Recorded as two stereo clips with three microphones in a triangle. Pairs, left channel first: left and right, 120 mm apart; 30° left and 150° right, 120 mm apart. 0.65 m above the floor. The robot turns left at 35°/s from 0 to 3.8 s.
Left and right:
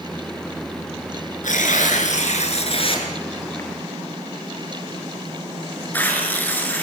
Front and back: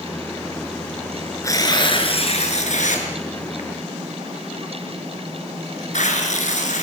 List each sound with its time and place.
1.4 s tearing paper: 95° left, 5.5 m; by 6.8 s 15° left, 5.5 m